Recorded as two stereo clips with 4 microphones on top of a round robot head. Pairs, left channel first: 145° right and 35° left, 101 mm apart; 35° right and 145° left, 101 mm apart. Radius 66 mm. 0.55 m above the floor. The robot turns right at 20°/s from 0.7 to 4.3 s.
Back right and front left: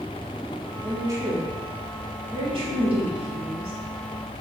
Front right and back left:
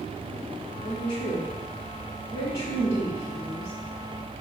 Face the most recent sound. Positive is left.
turn(degrees=55)